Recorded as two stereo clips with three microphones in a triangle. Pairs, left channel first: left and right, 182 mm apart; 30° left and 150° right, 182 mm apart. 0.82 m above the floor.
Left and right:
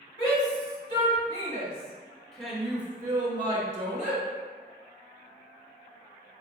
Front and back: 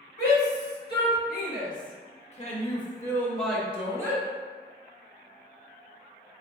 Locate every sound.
0.2 s a shout: 30° left, 2.0 m; by 4.2 s 90° right, 1.1 m